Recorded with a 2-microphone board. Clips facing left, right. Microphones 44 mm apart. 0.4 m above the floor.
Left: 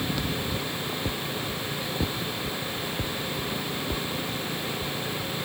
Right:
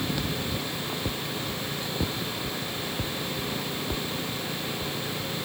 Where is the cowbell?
No cowbell in this recording.